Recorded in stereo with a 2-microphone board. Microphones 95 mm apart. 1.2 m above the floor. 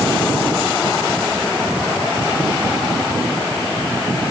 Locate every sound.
Only background noise.